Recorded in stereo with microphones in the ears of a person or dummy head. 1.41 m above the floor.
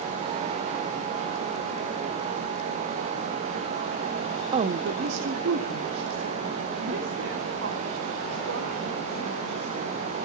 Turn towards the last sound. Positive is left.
turn(degrees=-85)